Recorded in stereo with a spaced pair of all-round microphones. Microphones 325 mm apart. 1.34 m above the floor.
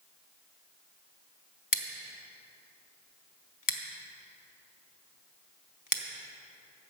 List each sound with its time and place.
1.7 s scissors: 75° left (ahead or behind), 0.8 m